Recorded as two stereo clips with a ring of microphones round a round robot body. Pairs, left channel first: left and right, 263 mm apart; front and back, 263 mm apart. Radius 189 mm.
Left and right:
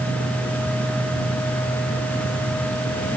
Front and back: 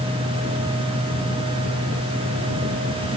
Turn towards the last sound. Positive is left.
No sound to turn to.